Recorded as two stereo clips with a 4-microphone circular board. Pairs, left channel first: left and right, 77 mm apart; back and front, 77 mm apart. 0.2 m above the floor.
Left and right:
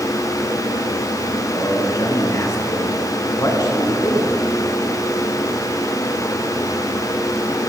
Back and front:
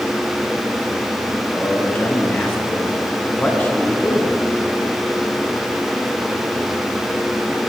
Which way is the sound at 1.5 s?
120° left.